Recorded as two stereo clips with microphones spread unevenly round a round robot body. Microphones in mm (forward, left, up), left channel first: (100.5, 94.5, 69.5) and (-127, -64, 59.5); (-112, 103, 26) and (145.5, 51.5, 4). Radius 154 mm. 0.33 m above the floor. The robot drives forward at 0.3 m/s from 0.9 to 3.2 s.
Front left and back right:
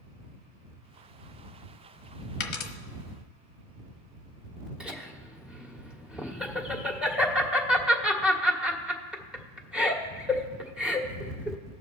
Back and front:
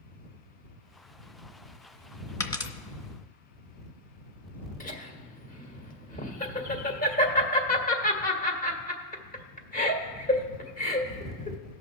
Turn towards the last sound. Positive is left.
turn(degrees=135)